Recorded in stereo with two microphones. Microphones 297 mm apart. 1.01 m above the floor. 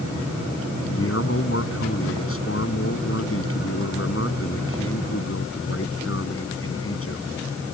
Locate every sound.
0.9 s a man speaking: 45° left (ahead or behind)